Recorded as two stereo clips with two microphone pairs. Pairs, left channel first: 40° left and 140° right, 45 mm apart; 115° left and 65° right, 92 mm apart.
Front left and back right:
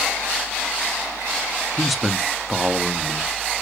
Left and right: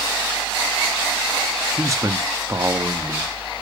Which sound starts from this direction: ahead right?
A man speaking, at 1.8 s.